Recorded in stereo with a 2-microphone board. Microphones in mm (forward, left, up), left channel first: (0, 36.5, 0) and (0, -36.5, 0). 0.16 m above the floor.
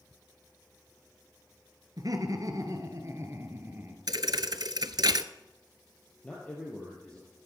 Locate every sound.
2.0 s laughter: 60° right (ahead or behind), 2 m; by 4.0 s 30° right (ahead or behind), 2.5 m
4.1 s a thud: 70° right (ahead or behind), 0.6 m
6.2 s a man speaking: 15° left (ahead or behind), 3 m